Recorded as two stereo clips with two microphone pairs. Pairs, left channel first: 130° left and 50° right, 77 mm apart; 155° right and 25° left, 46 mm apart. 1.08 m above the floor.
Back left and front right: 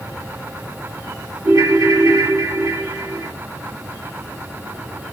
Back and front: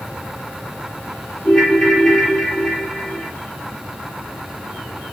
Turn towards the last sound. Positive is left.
turn(degrees=-85)